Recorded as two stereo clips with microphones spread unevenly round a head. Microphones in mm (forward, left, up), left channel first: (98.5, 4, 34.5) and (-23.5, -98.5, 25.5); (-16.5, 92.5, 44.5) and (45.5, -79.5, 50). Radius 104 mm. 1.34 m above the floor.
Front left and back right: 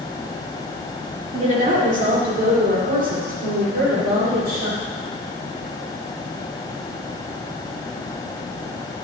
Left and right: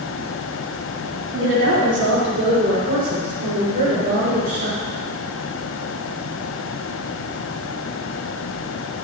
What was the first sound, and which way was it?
A woman speaking, 95° right.